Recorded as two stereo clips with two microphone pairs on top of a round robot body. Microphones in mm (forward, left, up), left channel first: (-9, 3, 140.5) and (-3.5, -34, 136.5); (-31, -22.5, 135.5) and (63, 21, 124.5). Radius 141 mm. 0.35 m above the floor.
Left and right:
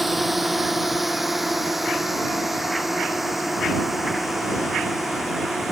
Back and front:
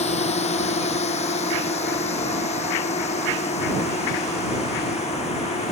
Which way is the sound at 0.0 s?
165° right.